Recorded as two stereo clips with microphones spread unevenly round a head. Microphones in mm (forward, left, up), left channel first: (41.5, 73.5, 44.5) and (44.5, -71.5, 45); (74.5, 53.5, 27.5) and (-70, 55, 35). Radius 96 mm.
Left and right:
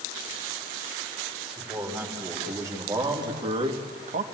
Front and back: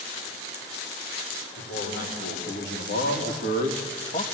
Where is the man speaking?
10° right, 4.5 m; by 4.2 s 60° right, 1.4 m.